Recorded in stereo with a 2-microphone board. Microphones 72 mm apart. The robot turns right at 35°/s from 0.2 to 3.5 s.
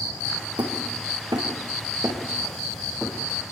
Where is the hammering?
75° right (ahead or behind), 7 m; by 3.5 s 5° left (ahead or behind), 7 m.